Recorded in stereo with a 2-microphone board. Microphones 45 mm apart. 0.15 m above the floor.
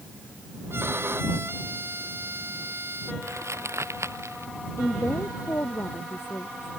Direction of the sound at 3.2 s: 85° right.